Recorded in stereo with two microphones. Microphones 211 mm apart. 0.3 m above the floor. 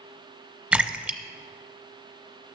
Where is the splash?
5° right (ahead or behind), 0.6 m.